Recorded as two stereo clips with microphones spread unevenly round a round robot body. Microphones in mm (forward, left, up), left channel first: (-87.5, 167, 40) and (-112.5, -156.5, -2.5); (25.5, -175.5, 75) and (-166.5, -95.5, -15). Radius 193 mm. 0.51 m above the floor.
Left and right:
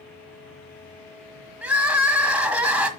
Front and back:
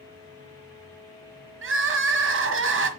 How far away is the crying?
About 1.5 m.